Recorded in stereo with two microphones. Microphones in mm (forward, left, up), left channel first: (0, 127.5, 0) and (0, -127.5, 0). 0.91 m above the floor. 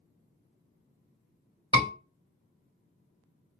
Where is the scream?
20° right (ahead or behind), 2 m.